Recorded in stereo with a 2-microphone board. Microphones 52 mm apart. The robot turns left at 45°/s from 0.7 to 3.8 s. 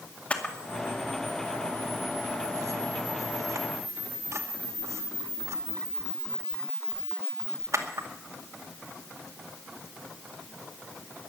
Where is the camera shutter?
25° left (ahead or behind), 2 m; by 8.1 s 65° right (ahead or behind), 2 m.